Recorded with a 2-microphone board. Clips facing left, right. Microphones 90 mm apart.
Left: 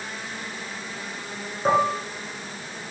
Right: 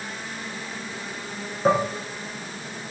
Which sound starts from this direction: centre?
Dishes clattering, at 1.6 s.